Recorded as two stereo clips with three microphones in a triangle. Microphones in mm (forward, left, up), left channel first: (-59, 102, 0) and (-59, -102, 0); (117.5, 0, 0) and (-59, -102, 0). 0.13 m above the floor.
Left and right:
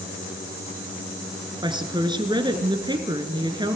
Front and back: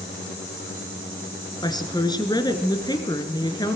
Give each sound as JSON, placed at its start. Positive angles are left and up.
{"t": 1.6, "sound": "a woman speaking", "azimuth_deg": -30, "distance_m": 2.0}